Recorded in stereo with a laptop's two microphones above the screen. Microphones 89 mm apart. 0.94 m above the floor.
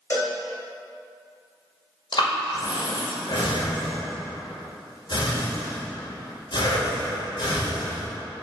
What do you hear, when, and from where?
0.1 s a cowbell: 30° left (ahead or behind), 1.3 m
2.1 s breathing: 60° left (ahead or behind), 1.8 m